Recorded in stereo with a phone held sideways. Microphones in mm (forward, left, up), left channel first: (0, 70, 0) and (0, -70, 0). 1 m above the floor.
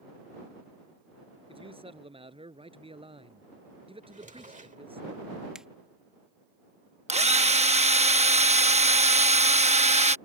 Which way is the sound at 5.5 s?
5° right (ahead or behind).